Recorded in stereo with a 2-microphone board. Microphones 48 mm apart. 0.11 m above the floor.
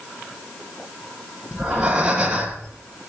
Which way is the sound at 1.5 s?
20° right (ahead or behind).